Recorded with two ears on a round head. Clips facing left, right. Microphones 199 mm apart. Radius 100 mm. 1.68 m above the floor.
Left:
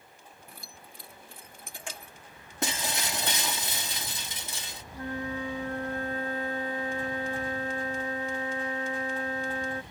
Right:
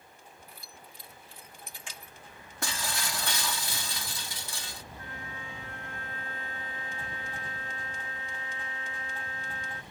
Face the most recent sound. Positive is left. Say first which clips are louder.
# left 15 dB
turn(degrees=35)  # may be behind; listen again after turning